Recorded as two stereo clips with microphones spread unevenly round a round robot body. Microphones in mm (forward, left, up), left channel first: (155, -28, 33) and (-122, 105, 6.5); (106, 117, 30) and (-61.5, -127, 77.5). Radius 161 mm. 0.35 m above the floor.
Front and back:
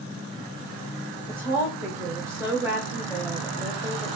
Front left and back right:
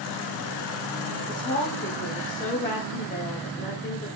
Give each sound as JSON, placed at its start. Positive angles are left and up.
{"t": 1.3, "sound": "a woman speaking", "azimuth_deg": 80, "distance_m": 1.1}